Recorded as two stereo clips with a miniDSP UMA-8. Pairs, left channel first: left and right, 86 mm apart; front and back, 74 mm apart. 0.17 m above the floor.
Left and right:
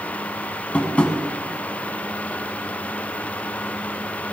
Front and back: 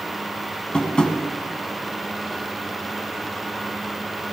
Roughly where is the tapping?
Ahead left.